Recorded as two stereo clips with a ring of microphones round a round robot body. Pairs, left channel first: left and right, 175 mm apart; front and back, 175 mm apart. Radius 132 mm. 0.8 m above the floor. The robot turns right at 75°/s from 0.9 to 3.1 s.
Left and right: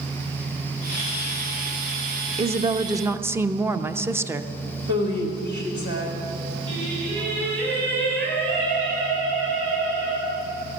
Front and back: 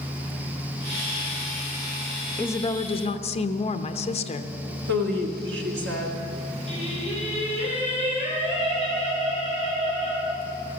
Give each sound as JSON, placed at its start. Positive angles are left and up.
{"t": 2.4, "sound": "a woman speaking", "azimuth_deg": -75, "distance_m": 0.8}
{"t": 4.9, "sound": "a woman speaking", "azimuth_deg": -155, "distance_m": 2.0}
{"t": 6.7, "sound": "singing", "azimuth_deg": -110, "distance_m": 6.5}